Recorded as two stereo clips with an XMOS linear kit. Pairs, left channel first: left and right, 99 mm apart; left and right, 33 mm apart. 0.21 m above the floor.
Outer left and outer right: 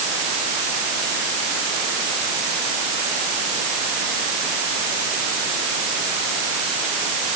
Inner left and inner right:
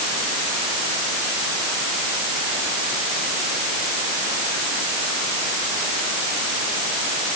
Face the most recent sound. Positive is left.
No sound to turn to.